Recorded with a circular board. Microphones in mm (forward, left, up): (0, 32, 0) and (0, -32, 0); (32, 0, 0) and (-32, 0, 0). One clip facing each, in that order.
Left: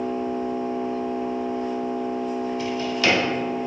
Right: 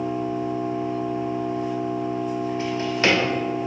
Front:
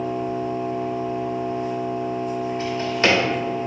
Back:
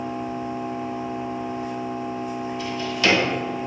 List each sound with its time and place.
0.0 s an engine running: 170° right, 1.2 m
2.6 s a drawer: 45° right, 0.7 m